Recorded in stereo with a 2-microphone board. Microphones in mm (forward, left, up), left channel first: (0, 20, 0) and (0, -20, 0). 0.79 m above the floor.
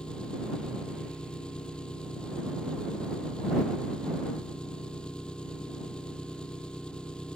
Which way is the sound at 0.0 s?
25° left (ahead or behind).